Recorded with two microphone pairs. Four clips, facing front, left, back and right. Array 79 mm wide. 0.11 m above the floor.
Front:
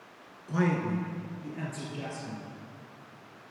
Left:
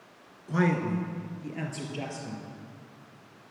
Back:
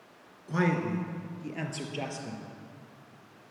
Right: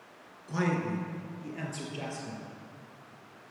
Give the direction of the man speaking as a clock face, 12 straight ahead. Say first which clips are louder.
Left 4 dB, even; 8 o'clock.